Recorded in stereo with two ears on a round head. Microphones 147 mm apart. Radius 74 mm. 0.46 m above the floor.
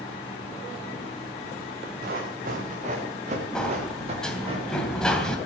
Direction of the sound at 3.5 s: 5° left (ahead or behind).